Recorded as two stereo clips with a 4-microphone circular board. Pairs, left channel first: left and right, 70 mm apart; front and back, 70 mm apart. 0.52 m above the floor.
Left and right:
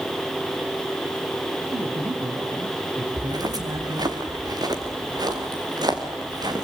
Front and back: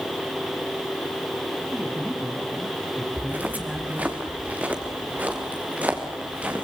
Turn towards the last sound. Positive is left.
turn(degrees=-110)